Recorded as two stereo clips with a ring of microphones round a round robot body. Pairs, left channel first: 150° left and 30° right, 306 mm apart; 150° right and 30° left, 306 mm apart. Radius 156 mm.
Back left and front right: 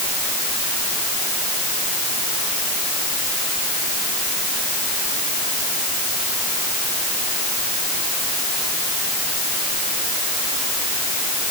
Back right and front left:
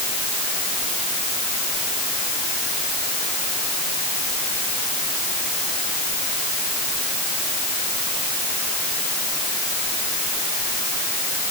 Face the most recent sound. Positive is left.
No sound to turn to.